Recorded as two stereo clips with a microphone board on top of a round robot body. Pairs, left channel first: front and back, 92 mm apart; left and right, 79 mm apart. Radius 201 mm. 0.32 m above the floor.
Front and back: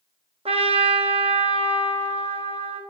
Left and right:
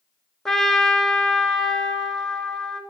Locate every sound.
0.5 s a trumpet: 175° left, 1.0 m